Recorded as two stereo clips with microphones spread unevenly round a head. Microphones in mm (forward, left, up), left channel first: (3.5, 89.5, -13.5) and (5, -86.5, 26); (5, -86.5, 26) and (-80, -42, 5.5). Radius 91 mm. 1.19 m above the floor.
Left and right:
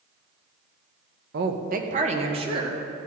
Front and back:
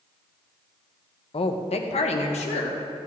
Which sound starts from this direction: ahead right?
A woman speaking, at 1.3 s.